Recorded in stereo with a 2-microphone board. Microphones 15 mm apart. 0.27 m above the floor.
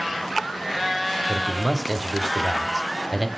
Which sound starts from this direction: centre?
A man speaking, at 1.3 s.